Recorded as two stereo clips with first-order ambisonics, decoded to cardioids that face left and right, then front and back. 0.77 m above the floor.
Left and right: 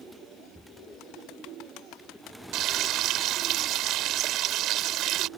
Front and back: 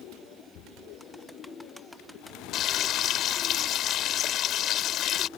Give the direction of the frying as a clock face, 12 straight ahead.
2 o'clock.